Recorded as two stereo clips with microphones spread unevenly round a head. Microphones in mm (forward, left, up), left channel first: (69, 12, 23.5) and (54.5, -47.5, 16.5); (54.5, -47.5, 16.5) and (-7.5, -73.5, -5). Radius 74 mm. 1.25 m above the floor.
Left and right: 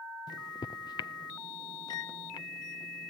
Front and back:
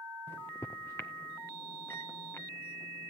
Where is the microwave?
95° left, 0.5 m.